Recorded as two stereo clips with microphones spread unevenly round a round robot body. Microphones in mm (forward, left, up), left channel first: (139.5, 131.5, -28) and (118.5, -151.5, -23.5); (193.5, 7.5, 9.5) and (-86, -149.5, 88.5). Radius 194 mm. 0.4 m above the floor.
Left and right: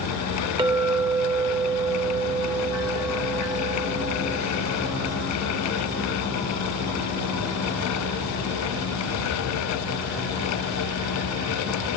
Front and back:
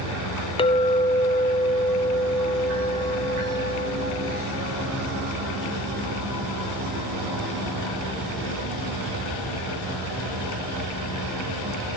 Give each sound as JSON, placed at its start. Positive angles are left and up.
{"t": 0.6, "sound": "a clink", "azimuth_deg": -25, "distance_m": 0.5}